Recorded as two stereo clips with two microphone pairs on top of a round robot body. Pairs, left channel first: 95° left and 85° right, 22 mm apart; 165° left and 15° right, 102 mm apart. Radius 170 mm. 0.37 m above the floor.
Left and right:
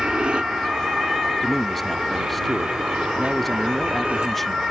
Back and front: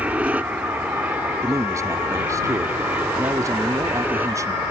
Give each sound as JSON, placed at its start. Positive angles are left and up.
{"t": 0.0, "sound": "an aircraft", "azimuth_deg": -85}
{"t": 1.4, "sound": "a man speaking", "azimuth_deg": 25}